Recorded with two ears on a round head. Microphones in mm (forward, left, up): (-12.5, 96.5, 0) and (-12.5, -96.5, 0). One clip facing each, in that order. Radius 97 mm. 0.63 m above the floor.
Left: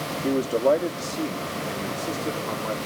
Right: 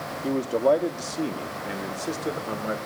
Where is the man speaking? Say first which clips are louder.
Left 1 dB; 20° left (ahead or behind), 0.6 m; by 2.8 s 20° right (ahead or behind), 1.6 m.